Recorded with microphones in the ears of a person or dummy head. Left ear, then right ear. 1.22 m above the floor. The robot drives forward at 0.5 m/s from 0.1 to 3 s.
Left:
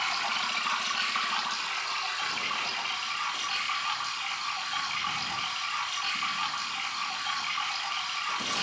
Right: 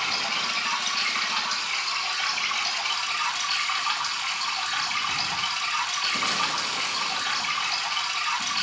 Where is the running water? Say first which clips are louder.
Right 3 dB; 40° left (ahead or behind), 3 m; by 8.6 s 25° left (ahead or behind), 4 m.